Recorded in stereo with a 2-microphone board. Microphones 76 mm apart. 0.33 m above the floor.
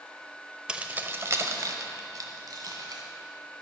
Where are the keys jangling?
15° right (ahead or behind), 0.7 m; by 3.0 s 60° right (ahead or behind), 2.0 m.